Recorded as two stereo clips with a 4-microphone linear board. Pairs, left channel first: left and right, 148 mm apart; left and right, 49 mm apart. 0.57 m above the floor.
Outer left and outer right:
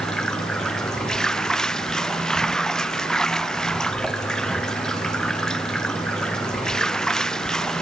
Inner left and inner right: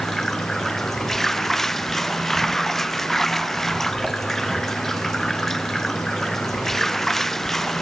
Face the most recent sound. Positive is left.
turn(degrees=5)  # may be behind; listen again after turning